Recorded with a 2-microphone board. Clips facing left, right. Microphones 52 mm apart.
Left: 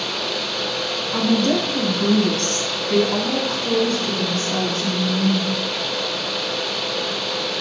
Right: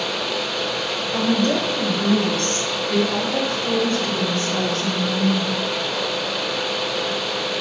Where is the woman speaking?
70° left (ahead or behind), 3 m; by 5.6 s 35° left (ahead or behind), 4 m.